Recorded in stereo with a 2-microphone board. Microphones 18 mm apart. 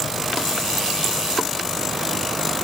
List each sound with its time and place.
Only background noise.